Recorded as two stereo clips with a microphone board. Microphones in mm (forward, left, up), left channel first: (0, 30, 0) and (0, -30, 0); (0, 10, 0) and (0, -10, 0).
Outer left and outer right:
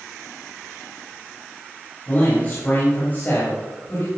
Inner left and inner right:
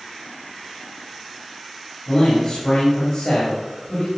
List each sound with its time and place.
2.1 s a man speaking: 30° left (ahead or behind), 3.5 m